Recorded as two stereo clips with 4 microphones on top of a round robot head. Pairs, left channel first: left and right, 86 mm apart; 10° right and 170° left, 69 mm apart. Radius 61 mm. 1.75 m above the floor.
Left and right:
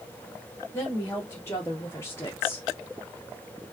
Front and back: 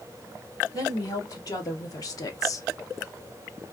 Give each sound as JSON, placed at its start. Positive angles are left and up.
{"t": 0.7, "sound": "a woman speaking", "azimuth_deg": 20, "distance_m": 2.5}